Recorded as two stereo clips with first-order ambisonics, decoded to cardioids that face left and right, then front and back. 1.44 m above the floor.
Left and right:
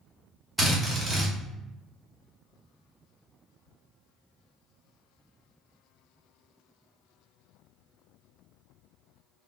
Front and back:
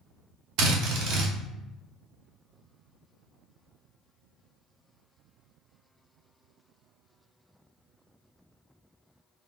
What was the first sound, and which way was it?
A drill, straight behind.